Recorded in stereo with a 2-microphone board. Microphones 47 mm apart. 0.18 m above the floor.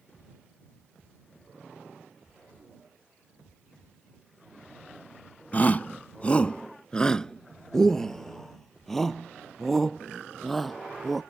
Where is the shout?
35° left (ahead or behind); by 11.2 s centre (ahead or behind).